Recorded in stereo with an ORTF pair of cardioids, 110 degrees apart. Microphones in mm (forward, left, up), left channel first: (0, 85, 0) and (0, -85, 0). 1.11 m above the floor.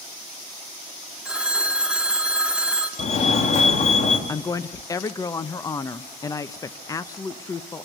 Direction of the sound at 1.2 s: 5° right.